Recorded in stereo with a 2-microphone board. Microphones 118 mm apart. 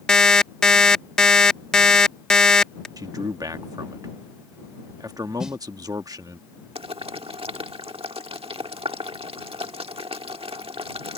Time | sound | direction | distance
0.1 | an alarm clock | 5° left (ahead or behind) | ?
3.0 | a man speaking | 30° right (ahead or behind) | ?
5.4 | a snare drum | 5° right (ahead or behind) | ?
6.8 | boiling | 50° right (ahead or behind) | ?